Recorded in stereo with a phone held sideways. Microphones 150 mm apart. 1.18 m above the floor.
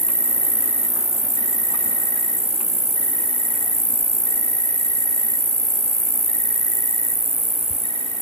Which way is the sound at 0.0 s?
40° left (ahead or behind).